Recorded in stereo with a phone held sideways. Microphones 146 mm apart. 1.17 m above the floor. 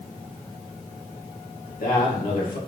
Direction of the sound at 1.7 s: 80° left.